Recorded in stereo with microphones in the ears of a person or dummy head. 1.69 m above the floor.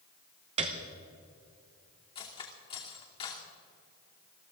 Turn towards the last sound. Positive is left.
turn(degrees=30)  # may be behind; listen again after turning